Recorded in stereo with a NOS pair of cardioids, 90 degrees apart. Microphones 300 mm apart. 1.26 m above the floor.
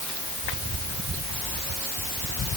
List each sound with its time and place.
Only background noise.